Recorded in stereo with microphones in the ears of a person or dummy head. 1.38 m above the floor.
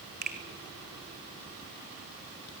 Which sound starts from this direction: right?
A finger snap, at 0.2 s.